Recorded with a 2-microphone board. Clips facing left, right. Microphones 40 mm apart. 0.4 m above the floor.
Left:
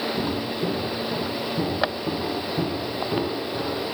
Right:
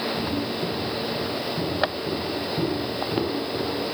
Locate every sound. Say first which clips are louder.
0.2 s footsteps: left 1 dB; 45° left (ahead or behind), 7 m; by 3.9 s 10° left (ahead or behind), 9.5 m